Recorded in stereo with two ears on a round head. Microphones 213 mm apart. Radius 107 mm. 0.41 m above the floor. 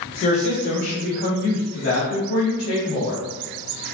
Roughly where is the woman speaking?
Left.